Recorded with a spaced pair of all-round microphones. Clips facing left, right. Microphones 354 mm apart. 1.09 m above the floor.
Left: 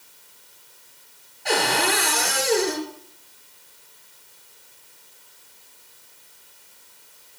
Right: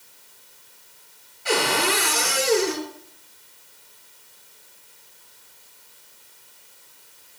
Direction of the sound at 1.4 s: 10° right (ahead or behind).